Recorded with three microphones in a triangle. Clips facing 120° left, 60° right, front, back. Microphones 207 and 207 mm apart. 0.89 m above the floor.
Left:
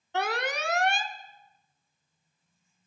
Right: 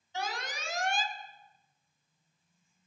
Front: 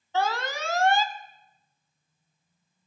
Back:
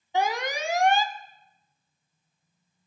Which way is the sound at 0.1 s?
105° left.